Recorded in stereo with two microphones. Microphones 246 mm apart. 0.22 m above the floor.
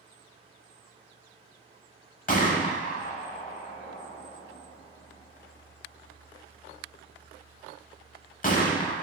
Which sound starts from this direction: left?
A gunshot, at 2.3 s.